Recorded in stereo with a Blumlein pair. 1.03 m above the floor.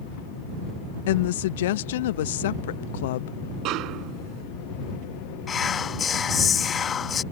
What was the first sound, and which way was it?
A woman speaking, 55° left.